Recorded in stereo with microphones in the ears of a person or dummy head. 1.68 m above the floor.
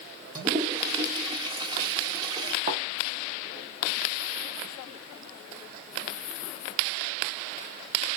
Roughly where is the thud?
Right.